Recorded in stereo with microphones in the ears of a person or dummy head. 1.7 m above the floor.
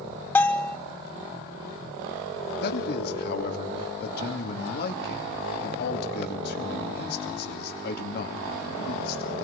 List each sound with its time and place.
0.3 s a bell: 10° left (ahead or behind), 0.5 m
2.6 s a man speaking: 60° left (ahead or behind), 2.5 m